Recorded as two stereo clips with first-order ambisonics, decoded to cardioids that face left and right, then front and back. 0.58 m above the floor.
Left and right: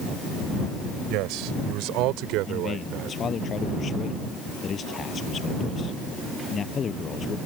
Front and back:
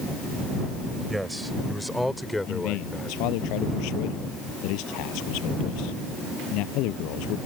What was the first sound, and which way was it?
A man speaking, 95° right.